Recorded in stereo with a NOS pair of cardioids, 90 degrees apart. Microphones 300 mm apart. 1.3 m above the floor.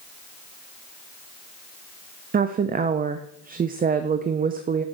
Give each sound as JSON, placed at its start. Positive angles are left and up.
{"t": 2.3, "sound": "a woman speaking", "azimuth_deg": -30, "distance_m": 0.5}